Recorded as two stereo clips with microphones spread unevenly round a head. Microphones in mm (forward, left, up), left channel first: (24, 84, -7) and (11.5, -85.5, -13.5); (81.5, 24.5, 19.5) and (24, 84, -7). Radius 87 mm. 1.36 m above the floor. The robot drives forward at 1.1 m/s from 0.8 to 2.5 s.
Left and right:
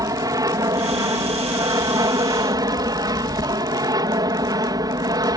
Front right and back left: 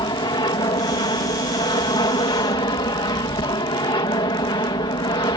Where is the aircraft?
25° right; by 5.4 s 30° right.